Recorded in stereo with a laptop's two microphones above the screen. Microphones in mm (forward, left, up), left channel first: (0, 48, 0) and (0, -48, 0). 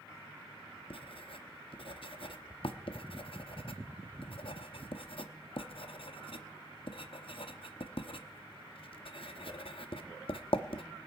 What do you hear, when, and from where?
0.9 s writing: 65° left (ahead or behind), 0.8 m